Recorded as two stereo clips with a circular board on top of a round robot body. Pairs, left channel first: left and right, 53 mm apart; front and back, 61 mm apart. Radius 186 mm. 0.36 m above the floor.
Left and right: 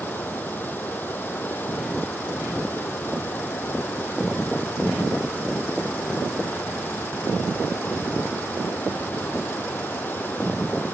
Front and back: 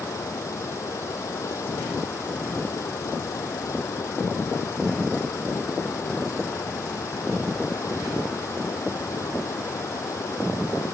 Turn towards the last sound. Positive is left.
turn(degrees=40)